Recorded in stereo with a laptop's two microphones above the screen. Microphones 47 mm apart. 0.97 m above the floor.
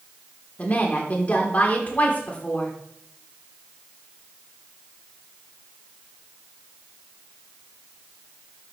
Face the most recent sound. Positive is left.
turn(degrees=35)  # may be behind; listen again after turning